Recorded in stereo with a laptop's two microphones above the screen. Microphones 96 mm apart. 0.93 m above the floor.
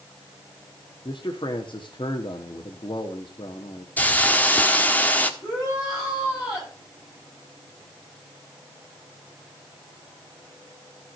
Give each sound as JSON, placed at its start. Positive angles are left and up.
{"t": 1.1, "sound": "a man speaking", "side_deg": 60, "distance_m": 1.4}
{"t": 4.0, "sound": "a hiss", "side_deg": 20, "distance_m": 1.4}
{"t": 5.4, "sound": "a shout", "side_deg": 30, "distance_m": 9.0}